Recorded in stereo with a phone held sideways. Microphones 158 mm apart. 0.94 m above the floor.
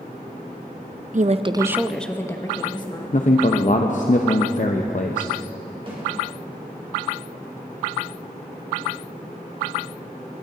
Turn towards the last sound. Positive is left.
turn(degrees=-35)  # may be behind; listen again after turning